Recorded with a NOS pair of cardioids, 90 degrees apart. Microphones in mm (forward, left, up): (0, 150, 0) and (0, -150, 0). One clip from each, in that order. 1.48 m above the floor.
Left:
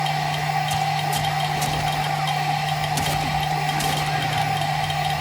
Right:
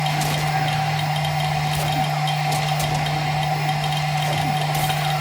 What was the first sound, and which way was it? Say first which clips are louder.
A machine running: even; 5° right.